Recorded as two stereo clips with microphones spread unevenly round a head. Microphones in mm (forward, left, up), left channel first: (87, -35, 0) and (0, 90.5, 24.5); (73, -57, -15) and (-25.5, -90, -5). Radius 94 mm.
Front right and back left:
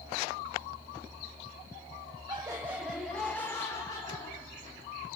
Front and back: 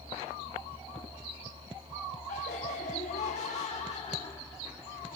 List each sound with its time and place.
2.3 s laughter: 60° left, 1.4 m; by 4.8 s straight ahead, 2.5 m